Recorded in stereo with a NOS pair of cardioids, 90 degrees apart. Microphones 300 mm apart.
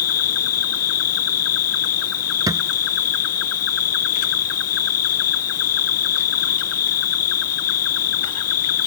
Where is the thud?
10° right.